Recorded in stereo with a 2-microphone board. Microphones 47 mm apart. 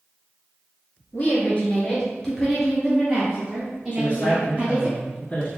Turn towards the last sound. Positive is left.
turn(degrees=25)  # may be behind; listen again after turning